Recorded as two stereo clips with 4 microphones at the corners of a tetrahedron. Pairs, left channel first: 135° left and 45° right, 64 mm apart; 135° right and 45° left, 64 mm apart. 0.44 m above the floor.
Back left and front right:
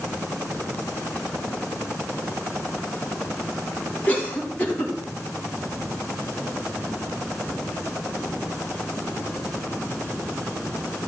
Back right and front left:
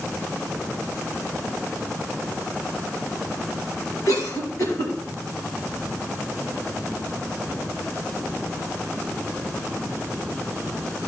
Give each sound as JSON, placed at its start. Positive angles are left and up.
{"t": 4.1, "sound": "a cough", "azimuth_deg": -160, "distance_m": 4.5}